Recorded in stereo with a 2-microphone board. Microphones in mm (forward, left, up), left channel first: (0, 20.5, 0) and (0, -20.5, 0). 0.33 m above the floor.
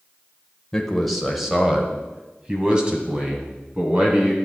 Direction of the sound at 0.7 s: 10° left (ahead or behind).